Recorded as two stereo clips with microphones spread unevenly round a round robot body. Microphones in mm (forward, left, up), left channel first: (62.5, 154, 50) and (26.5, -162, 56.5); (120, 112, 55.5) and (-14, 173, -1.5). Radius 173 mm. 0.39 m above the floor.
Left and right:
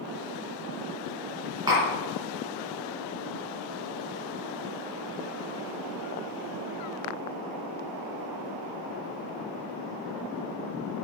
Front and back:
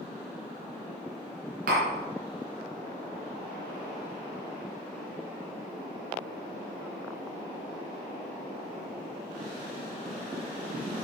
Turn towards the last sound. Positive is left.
turn(degrees=-175)